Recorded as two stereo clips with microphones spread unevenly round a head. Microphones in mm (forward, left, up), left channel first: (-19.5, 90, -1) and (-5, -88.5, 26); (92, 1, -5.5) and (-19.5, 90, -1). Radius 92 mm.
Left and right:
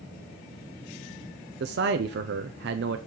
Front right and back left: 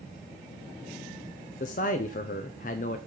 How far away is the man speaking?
About 0.6 m.